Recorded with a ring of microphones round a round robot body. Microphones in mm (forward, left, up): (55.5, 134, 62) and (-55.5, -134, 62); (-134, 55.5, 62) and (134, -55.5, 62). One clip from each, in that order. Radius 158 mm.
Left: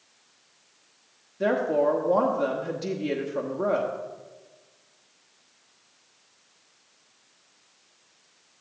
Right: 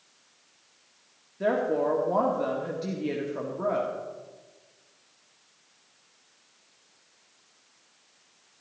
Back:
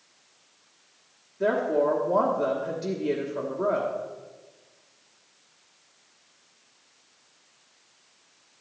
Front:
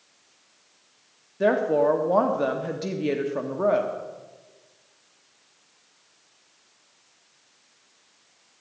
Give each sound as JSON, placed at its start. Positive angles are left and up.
{"t": 1.4, "sound": "a woman speaking", "azimuth_deg": -10, "distance_m": 1.2}